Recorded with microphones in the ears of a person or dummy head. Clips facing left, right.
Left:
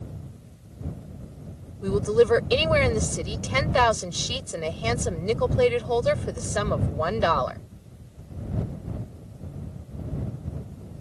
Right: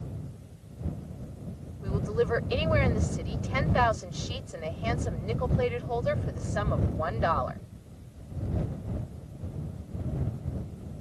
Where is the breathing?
I don't hear breathing.